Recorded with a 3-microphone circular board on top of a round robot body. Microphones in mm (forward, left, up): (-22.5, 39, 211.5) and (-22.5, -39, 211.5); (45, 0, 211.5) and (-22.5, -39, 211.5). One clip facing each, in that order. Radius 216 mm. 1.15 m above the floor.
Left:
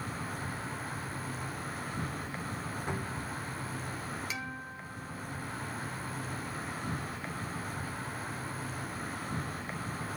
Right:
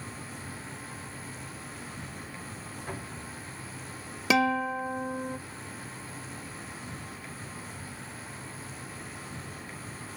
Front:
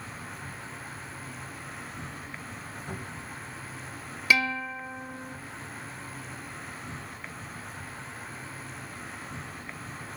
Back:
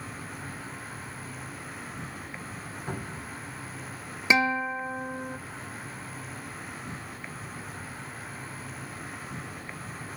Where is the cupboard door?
160° left, 5.5 m.